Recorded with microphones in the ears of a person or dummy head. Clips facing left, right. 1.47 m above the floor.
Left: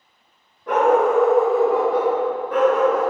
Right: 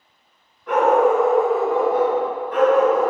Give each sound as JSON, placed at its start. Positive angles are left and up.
{"t": 0.7, "sound": "a dog barking", "side_deg": 25, "distance_m": 1.9}